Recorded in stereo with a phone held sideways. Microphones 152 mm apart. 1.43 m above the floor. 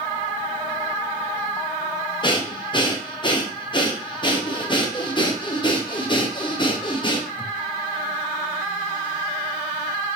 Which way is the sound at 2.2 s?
30° left (ahead or behind).